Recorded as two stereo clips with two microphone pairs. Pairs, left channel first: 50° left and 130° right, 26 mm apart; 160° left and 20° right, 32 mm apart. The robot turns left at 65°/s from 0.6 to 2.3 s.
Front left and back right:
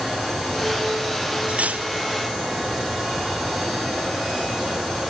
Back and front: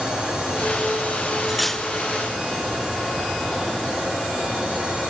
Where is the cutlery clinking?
100° right; by 1.9 s 125° right.